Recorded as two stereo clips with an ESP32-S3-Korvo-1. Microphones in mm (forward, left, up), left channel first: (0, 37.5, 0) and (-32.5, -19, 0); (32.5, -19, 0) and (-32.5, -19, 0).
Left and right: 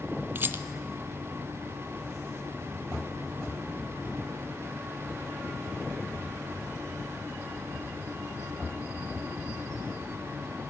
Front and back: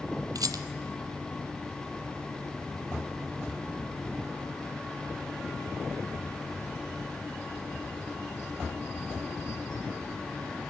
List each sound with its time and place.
0.3 s a rattle: 175° right, 0.7 m